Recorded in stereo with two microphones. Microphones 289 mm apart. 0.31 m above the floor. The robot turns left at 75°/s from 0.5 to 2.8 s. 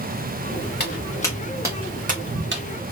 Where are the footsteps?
35° left (ahead or behind), 2.0 m; by 2.6 s 45° right (ahead or behind), 1.1 m.